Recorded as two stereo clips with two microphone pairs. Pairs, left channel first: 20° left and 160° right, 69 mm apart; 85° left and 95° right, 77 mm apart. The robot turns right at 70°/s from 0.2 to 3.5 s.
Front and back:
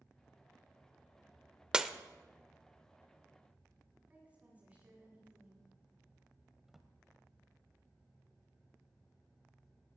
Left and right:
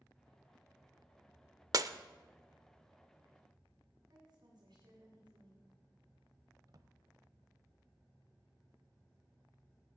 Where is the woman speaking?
95° right, 8.5 m.